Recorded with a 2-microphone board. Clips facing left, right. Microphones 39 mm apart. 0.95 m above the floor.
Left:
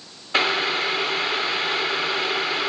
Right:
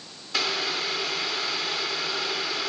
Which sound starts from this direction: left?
Boiling, at 0.3 s.